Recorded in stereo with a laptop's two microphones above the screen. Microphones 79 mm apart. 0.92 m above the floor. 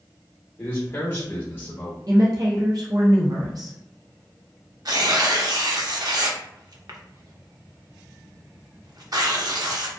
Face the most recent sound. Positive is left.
turn(degrees=-55)  # may be behind; listen again after turning